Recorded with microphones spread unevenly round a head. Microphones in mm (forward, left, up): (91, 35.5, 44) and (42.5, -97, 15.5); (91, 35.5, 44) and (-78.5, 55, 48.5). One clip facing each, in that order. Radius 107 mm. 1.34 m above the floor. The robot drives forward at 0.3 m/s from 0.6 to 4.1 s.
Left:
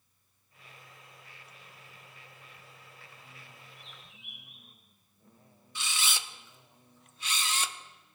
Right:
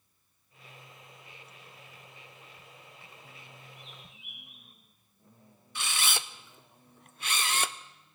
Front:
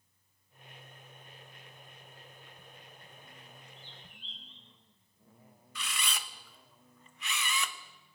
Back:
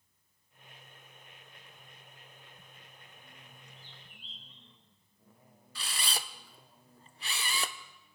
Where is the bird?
90° left, 5.5 m.